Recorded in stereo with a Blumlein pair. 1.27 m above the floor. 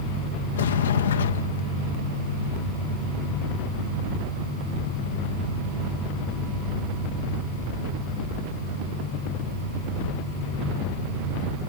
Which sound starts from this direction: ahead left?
A sliding door, at 0.6 s.